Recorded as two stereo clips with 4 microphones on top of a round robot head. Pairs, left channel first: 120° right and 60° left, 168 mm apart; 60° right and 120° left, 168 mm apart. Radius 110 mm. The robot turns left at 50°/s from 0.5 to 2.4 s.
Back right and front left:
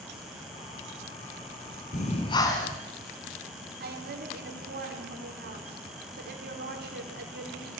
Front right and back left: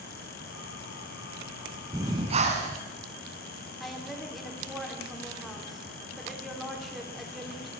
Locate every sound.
1.9 s breathing: 165° right, 2 m; by 2.8 s 170° left, 2 m
3.8 s a woman speaking: 30° left, 4 m